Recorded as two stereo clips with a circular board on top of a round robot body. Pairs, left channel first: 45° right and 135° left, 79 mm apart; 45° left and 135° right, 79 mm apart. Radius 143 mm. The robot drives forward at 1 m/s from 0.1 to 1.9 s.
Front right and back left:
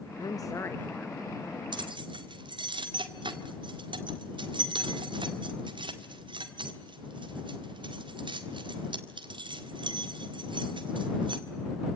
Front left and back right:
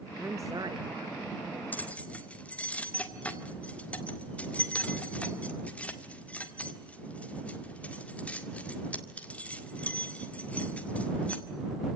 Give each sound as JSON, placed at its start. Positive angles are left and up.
{"t": 0.2, "sound": "a woman speaking", "azimuth_deg": -70, "distance_m": 1.0}
{"t": 1.7, "sound": "keys jangling", "azimuth_deg": 115, "distance_m": 1.8}